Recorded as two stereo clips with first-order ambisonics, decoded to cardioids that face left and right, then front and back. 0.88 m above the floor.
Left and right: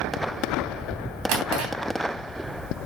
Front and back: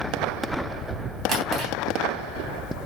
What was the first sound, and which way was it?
A drawer, 115° right.